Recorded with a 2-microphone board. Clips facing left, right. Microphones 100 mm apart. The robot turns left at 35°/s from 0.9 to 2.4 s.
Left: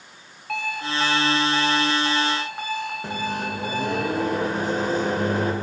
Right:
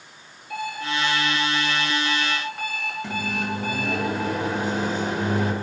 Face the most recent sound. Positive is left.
turn(degrees=45)  # may be behind; listen again after turning